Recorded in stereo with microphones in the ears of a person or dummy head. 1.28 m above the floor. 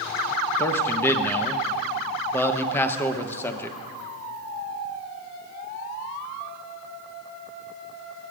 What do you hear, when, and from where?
0.6 s a man speaking: 15° left (ahead or behind), 0.9 m